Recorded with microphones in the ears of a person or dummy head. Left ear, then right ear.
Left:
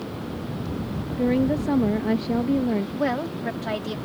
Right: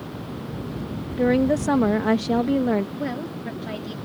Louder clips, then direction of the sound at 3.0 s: Left 5 dB; 25° left (ahead or behind).